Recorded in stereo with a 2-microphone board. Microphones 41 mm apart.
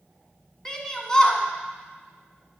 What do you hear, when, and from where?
0.7 s a shout: 15° left (ahead or behind), 1.2 m